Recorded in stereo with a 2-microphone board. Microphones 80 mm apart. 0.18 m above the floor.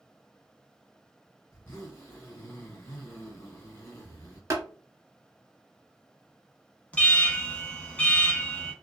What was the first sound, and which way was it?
A zipper, 30° left (ahead or behind).